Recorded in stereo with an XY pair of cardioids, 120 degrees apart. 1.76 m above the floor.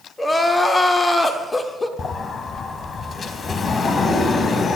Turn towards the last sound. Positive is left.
turn(degrees=30)